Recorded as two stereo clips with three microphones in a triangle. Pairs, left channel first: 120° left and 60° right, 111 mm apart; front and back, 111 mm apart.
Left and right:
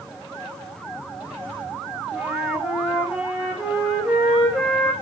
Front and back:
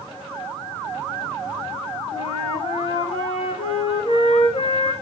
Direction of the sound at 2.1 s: 25° left.